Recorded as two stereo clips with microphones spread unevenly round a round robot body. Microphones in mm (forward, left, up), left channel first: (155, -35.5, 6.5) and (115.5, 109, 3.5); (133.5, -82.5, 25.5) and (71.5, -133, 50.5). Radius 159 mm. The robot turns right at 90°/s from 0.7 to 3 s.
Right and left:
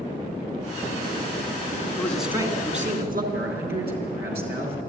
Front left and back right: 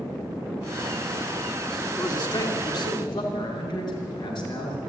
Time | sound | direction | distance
2.0 | a man speaking | 5° right | 3 m
3.3 | a man speaking | 120° left | 4 m